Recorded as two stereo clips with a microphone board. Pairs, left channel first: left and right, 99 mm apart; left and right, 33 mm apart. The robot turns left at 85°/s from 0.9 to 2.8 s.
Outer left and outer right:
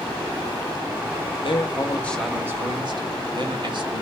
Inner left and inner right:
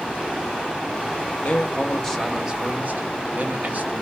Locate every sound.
1.4 s a man speaking: 65° left, 1.0 m; by 4.0 s 50° right, 1.0 m